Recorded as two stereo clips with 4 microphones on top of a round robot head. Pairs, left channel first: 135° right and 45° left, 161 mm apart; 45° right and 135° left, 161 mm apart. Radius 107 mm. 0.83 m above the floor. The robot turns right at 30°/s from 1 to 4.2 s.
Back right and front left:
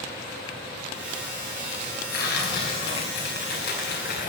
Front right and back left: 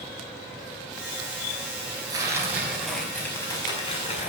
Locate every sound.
2.1 s tearing paper: 160° right, 4.5 m; by 4.3 s 95° right, 4.5 m